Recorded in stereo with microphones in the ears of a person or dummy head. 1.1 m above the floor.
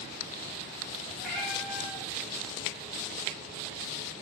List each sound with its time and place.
1.2 s a cat meowing: 5° left (ahead or behind), 2 m